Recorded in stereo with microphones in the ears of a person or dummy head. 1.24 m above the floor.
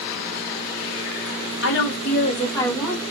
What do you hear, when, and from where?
1.6 s a woman speaking: 55° left (ahead or behind), 0.8 m; by 3.0 s centre (ahead or behind), 1.1 m